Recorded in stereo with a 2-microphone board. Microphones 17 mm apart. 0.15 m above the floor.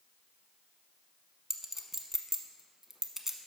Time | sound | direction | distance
1.5 | a clink | 25° right (ahead or behind) | 0.8 m